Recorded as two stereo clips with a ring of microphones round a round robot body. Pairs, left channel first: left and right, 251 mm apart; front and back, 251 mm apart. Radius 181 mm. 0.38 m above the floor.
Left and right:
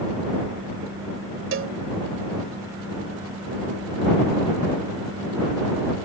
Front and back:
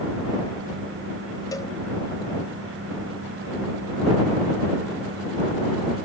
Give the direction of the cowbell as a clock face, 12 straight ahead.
3 o'clock.